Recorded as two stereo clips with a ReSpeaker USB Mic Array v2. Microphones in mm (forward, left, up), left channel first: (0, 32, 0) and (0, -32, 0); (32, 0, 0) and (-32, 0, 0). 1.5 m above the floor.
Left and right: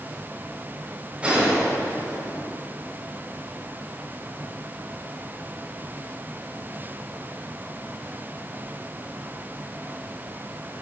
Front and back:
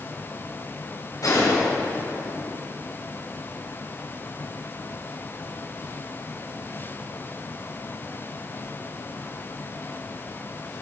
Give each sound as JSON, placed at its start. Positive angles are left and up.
{"t": 1.2, "sound": "a gunshot", "azimuth_deg": -20, "distance_m": 5.0}